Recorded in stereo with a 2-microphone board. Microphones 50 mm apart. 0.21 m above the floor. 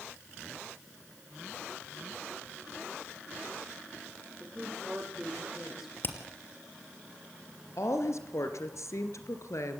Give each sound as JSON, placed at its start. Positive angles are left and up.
{"t": 4.4, "sound": "a woman speaking", "side_deg": -10, "distance_m": 6.0}
{"t": 6.0, "sound": "hammering", "side_deg": 45, "distance_m": 3.0}
{"t": 7.8, "sound": "a woman speaking", "side_deg": 70, "distance_m": 3.0}